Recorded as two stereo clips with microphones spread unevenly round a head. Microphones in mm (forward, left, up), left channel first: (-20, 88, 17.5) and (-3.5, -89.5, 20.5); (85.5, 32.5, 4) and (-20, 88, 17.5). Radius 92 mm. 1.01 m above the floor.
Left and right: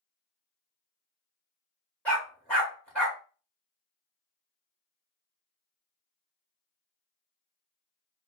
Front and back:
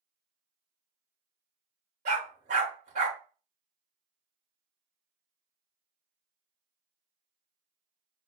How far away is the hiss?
I don't hear a hiss.